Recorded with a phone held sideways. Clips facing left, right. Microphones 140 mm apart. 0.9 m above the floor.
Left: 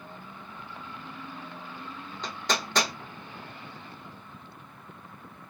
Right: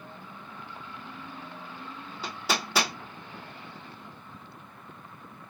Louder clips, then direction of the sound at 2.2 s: Even; 5° right (ahead or behind).